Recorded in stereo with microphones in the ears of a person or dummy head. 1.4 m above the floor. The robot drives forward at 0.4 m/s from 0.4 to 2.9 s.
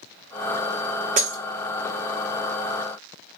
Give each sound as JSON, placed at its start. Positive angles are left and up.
{"t": 1.2, "sound": "breaking glass", "side_deg": -35, "distance_m": 1.3}